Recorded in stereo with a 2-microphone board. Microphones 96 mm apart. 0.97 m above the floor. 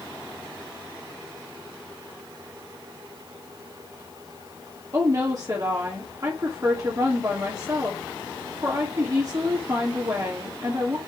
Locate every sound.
4.9 s a woman speaking: 40° right (ahead or behind), 2 m